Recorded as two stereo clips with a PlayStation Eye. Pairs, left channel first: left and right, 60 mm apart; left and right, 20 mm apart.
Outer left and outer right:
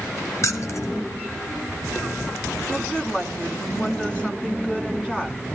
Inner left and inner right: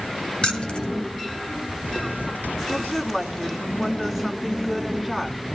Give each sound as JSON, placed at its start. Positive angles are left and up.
{"t": 0.4, "sound": "keys jangling", "side_deg": 55, "distance_m": 1.4}
{"t": 2.7, "sound": "a woman speaking", "side_deg": 15, "distance_m": 3.0}